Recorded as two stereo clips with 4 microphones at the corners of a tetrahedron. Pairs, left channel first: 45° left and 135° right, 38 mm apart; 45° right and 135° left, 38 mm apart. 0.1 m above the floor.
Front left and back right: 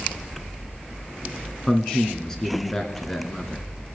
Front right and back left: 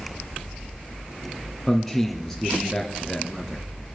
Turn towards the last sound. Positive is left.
turn(degrees=10)